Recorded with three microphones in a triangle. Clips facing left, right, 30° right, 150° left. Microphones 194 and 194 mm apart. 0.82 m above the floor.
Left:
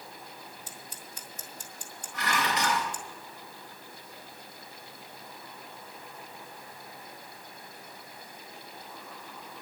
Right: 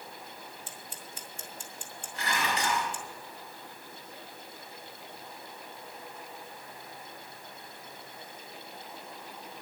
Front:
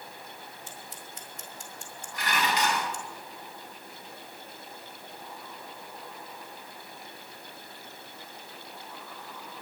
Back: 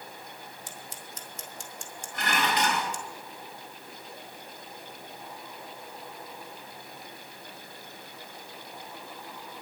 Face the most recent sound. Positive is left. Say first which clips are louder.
# left 2 dB, back 1 dB
turn(degrees=110)